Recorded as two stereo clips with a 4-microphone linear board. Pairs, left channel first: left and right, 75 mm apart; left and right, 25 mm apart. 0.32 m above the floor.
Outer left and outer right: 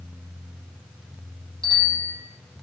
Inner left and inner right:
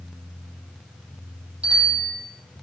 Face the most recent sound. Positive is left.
turn(degrees=-60)  # may be behind; listen again after turning